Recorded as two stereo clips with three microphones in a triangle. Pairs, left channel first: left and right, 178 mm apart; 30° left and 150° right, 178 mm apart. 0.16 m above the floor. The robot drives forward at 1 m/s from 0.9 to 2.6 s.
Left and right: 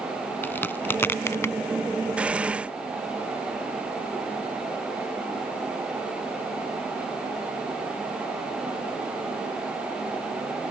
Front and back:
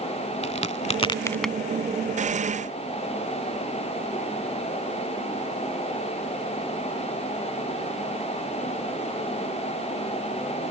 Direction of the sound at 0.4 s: 20° left.